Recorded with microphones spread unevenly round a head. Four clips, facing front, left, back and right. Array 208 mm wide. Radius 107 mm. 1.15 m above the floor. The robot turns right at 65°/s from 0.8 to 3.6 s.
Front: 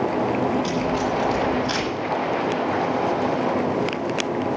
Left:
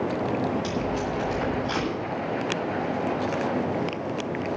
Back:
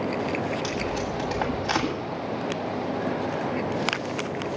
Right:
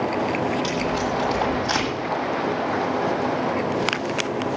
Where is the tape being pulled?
175° left, 8 m; by 1.9 s 115° right, 8 m.